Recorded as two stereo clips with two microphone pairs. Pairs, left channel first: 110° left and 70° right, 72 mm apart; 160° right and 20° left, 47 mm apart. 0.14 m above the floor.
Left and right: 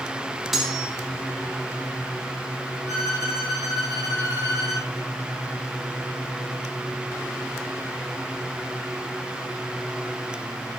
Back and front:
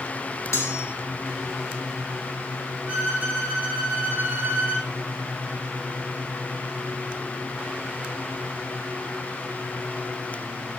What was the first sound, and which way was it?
Cutlery clinking, 155° right.